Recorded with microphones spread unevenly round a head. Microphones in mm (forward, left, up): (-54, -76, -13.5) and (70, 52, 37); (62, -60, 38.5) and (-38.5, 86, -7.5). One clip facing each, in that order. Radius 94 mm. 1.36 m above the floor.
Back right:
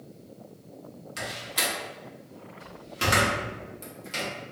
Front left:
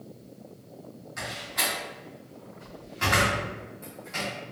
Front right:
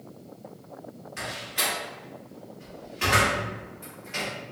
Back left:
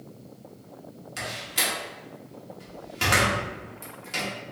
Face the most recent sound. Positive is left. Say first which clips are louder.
# back right 1 dB, back left 1 dB
turn(degrees=175)